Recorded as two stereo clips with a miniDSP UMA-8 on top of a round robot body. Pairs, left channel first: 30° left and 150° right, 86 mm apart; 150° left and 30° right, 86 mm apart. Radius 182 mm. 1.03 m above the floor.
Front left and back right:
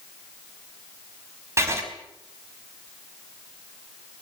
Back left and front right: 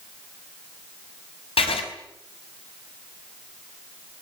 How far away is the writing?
About 4 m.